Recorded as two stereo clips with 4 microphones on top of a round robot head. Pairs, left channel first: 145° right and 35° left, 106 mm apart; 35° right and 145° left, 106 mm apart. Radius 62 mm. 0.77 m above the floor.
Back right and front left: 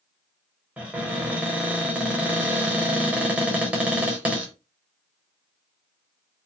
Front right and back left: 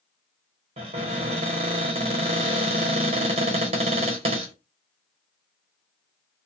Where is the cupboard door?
115° left, 0.9 m.